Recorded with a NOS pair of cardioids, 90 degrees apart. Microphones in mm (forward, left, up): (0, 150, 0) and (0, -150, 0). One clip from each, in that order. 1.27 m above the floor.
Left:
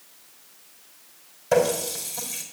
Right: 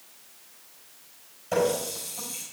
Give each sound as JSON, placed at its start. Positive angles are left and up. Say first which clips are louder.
{"t": 1.5, "sound": "a running tap", "louder": "left 4 dB", "azimuth_deg": 65, "distance_m": 5.0}